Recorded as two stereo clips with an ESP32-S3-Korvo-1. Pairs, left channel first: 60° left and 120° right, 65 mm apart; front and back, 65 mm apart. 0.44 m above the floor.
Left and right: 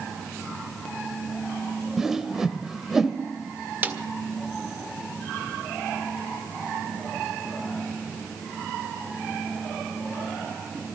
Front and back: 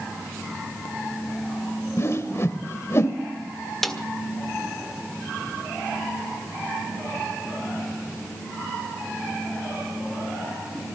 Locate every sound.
2.0 s a whoosh: 40° right, 1.6 m
3.8 s a snare drum: 85° right, 1.6 m